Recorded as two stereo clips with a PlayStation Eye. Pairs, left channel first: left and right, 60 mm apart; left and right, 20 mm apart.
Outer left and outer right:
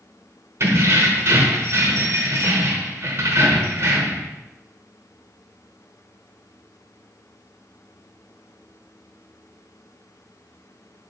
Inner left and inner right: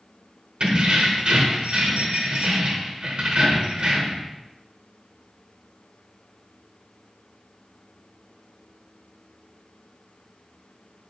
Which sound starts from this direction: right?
Keys jangling, at 0.6 s.